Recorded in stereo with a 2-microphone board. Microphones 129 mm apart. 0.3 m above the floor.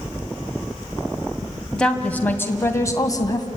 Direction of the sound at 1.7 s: 5° left (ahead or behind).